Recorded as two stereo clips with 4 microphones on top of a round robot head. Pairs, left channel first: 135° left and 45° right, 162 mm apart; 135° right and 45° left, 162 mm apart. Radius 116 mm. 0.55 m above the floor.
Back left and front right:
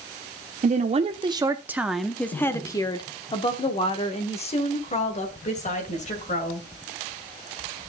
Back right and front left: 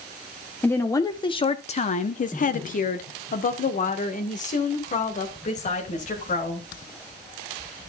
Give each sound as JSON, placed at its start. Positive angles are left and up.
{"t": 0.6, "sound": "a woman speaking", "azimuth_deg": -60, "distance_m": 0.8}